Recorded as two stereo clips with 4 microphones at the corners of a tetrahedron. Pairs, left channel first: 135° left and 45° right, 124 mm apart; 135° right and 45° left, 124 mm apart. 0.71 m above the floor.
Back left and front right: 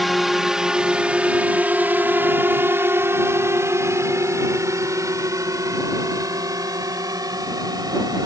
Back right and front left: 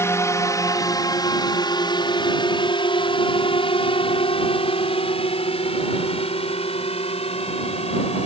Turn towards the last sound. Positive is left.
turn(degrees=-100)